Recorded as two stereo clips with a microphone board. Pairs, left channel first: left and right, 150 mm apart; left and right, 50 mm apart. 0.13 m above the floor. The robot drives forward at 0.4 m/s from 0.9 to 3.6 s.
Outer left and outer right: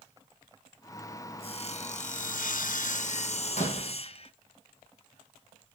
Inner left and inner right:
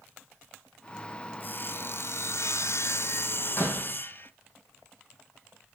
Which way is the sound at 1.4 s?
40° left (ahead or behind).